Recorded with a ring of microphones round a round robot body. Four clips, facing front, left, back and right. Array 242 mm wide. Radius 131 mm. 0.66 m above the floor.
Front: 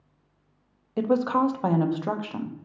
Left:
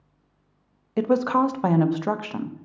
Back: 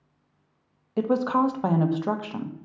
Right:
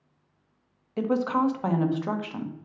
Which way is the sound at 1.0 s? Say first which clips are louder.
Left 4 dB, even; 90° left.